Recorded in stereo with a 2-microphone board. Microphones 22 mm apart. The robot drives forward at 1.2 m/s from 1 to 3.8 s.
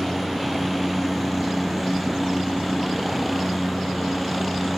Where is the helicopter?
5° right (ahead or behind).